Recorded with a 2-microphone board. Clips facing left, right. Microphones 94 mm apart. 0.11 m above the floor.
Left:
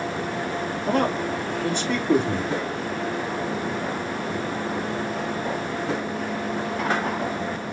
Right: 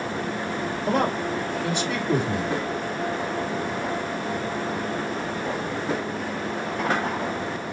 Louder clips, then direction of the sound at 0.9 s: Left 1 dB; 10° right (ahead or behind).